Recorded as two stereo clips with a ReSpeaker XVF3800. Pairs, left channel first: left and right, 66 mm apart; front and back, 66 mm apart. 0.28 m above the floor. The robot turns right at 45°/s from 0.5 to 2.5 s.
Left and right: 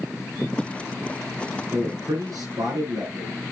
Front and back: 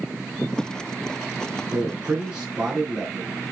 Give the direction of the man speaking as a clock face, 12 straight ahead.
4 o'clock.